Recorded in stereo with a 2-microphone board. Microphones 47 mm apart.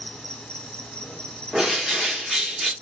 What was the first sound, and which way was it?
An insect, 20° left (ahead or behind).